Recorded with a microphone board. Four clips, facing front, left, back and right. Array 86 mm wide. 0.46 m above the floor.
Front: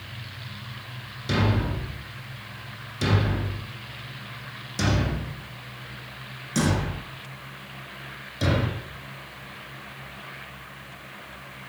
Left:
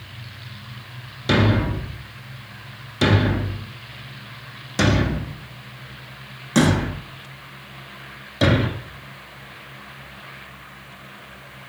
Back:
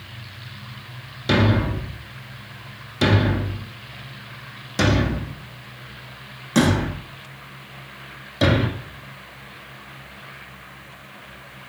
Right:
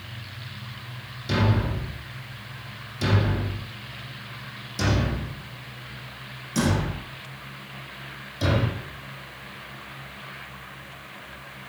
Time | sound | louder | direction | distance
1.3 | a thud | left 6 dB, back 6 dB | 125° left | 1.1 m